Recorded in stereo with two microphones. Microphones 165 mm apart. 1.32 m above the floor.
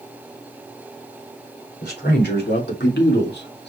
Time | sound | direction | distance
1.8 | a man speaking | 70° left (ahead or behind) | 4 m